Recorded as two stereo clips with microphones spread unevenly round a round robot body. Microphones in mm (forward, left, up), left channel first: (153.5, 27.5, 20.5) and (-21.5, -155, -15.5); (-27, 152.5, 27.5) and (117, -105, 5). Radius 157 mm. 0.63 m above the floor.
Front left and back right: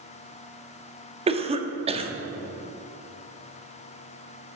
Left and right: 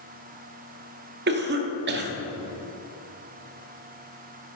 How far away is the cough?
About 1.0 m.